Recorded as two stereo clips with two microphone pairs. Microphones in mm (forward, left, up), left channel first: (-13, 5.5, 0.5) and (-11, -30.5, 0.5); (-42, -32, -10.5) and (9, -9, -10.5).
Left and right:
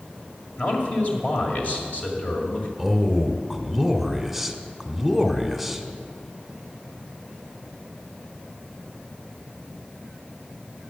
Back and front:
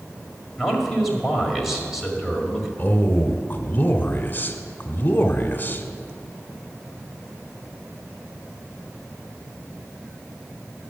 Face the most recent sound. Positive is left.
turn(degrees=-175)